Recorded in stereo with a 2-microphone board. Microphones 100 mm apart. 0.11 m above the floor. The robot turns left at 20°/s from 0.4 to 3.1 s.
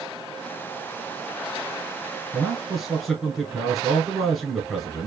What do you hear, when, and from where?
2.3 s a man speaking: 5° right (ahead or behind), 1.2 m; by 5.1 s centre (ahead or behind), 1.2 m